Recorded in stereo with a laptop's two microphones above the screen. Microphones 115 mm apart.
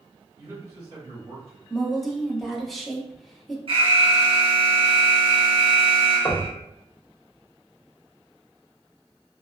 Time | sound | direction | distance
0.4 | a man speaking | 50° right (ahead or behind) | 1.4 m
1.7 | a woman speaking | centre (ahead or behind) | 0.6 m
3.7 | an alarm | 50° right (ahead or behind) | 1.1 m
6.2 | knocking | 20° left (ahead or behind) | 0.5 m